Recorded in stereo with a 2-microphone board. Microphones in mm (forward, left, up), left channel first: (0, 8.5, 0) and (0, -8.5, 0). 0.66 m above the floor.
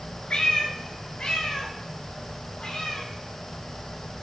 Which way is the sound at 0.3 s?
70° left (ahead or behind).